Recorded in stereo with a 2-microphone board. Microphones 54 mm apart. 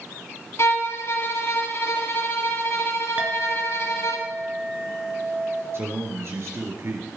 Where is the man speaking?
55° right (ahead or behind), 4 m.